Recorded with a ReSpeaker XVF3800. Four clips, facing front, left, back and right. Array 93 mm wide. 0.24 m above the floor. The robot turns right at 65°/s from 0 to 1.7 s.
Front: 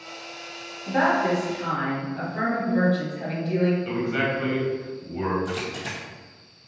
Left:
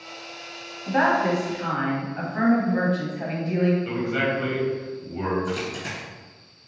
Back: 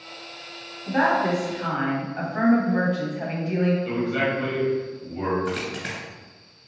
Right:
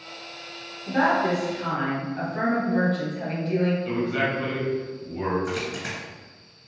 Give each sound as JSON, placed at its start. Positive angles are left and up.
{"t": 0.9, "sound": "a woman speaking", "azimuth_deg": 100, "distance_m": 1.1}
{"t": 3.9, "sound": "a man speaking", "azimuth_deg": 45, "distance_m": 1.3}
{"t": 5.5, "sound": "a dropped coin", "azimuth_deg": -155, "distance_m": 1.6}